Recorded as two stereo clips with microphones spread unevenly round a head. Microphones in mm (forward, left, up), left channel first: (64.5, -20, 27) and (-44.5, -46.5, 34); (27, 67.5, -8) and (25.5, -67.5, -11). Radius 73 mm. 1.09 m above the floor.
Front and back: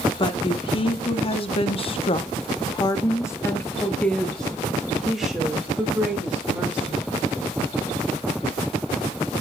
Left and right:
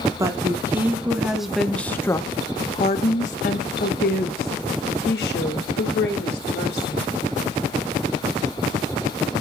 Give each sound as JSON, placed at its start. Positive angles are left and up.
{"t": 0.2, "sound": "a woman speaking", "azimuth_deg": -25, "distance_m": 1.6}